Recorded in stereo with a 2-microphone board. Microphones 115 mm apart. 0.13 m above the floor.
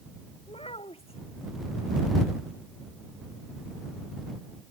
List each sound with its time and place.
0.5 s a child speaking: 55° left (ahead or behind)